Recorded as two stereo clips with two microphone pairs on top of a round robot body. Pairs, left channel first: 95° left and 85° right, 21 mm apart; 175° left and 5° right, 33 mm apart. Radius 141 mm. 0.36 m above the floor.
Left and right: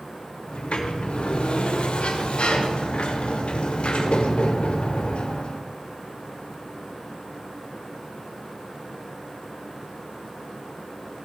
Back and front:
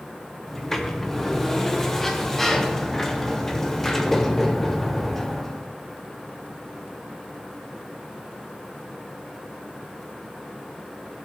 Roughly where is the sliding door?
Left.